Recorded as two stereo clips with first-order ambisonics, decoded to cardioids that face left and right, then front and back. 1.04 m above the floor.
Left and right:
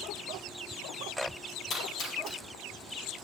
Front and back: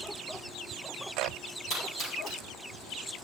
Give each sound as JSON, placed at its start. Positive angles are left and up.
{"t": 1.7, "sound": "a splash", "azimuth_deg": 50, "distance_m": 4.0}